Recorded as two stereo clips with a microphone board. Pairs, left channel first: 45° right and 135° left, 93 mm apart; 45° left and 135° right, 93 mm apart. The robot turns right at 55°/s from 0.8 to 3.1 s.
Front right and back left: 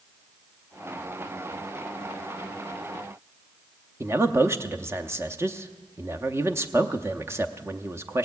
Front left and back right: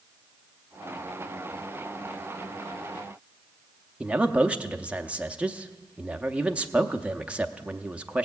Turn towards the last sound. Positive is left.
turn(degrees=160)